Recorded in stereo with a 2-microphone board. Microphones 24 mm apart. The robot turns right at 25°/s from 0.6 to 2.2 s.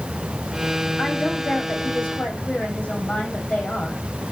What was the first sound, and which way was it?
A woman speaking, 80° left.